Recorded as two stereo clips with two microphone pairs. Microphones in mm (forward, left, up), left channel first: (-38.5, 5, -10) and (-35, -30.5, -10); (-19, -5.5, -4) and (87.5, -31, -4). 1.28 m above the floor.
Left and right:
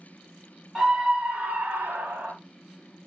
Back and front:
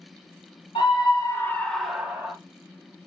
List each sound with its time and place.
0.8 s a scream: 160° right, 1.8 m; by 2.3 s 85° right, 2 m